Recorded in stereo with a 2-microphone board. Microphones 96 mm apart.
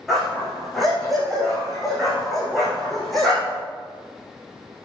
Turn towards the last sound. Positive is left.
turn(degrees=5)  # may be behind; listen again after turning